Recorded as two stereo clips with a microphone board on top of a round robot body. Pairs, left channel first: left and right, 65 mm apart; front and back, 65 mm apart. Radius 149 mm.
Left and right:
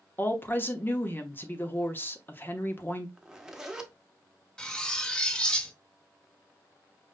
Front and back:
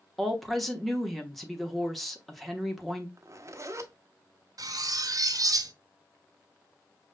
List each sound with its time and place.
0.2 s a woman speaking: 85° left, 1.1 m
3.2 s a zipper: 170° right, 1.0 m
4.6 s cutlery clinking: 165° left, 0.9 m